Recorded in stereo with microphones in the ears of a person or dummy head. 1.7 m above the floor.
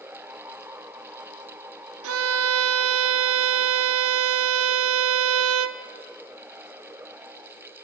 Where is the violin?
75° right (ahead or behind), 0.9 m.